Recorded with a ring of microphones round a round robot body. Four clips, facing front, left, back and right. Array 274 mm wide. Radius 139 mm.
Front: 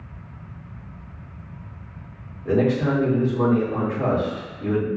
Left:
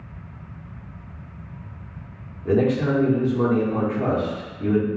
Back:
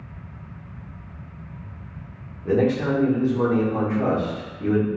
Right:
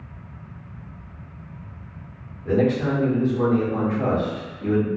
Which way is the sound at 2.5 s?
125° left.